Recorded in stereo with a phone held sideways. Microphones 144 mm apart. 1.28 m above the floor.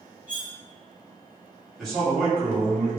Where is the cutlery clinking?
65° left (ahead or behind), 1.4 m.